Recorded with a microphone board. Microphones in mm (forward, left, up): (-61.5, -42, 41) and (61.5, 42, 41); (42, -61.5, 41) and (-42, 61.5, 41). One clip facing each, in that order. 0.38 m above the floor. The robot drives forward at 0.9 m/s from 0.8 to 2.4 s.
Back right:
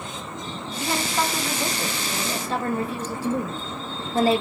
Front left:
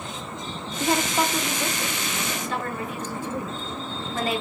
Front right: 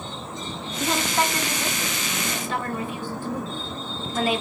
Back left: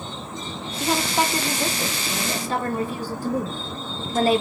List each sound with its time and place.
0.8 s a woman speaking: 40° left, 0.9 m; by 4.4 s 165° left, 1.4 m